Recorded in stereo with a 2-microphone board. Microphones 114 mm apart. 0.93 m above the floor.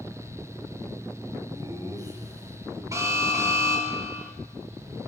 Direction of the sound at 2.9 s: 25° right (ahead or behind).